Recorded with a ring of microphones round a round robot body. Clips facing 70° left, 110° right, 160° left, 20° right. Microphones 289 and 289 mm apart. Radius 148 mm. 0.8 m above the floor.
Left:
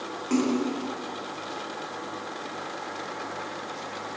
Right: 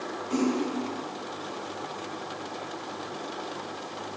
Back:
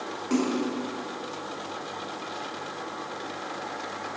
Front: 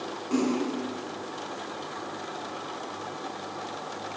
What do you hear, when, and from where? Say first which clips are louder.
0.3 s a splash: left 2 dB, even; 105° left, 1.8 m